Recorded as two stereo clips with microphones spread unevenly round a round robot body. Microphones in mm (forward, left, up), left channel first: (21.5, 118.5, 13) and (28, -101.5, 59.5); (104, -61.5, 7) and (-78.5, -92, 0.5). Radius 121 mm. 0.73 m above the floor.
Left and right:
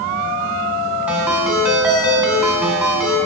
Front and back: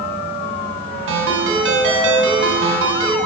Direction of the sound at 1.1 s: 170° right.